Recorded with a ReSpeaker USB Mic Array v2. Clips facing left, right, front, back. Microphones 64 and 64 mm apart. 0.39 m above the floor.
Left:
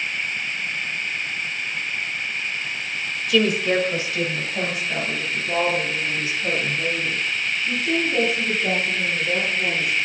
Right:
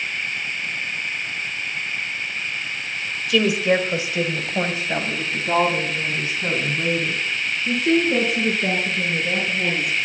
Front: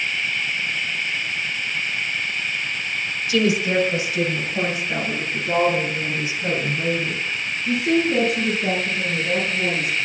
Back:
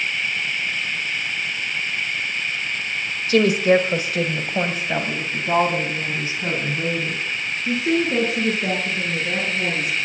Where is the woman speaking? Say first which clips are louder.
Right 1 dB, back 4 dB; straight behind, 1.6 m; by 10.1 s 120° right, 7 m.